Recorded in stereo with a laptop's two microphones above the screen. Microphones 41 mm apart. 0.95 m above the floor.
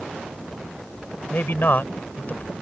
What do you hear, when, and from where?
1.3 s a man speaking: 55° left (ahead or behind); by 2.5 s 40° left (ahead or behind)